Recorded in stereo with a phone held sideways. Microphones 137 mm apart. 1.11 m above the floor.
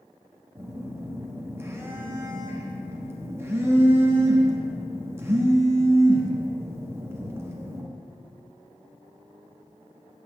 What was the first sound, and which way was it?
A phone buzzing, 20° right (ahead or behind).